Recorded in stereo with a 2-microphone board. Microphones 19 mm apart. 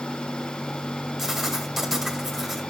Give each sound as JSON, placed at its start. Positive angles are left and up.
{"t": 1.2, "sound": "writing", "side_deg": 0, "distance_m": 2.0}